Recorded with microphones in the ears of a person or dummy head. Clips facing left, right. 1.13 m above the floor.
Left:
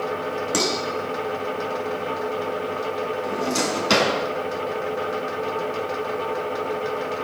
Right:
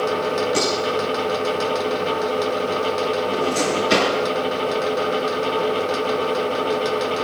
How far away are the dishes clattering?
About 9 m.